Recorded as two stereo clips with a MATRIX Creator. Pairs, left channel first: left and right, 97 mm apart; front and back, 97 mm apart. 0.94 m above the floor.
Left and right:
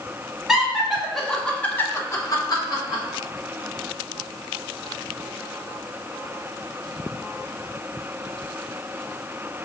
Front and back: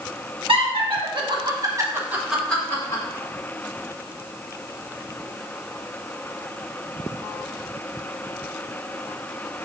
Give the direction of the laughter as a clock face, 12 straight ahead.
6 o'clock.